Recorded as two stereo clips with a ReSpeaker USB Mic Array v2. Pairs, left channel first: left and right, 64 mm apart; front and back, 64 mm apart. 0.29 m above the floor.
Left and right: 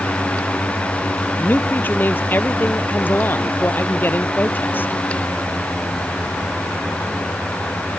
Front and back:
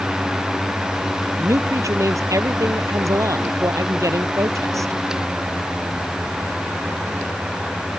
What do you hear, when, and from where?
1.4 s a man speaking: 145° left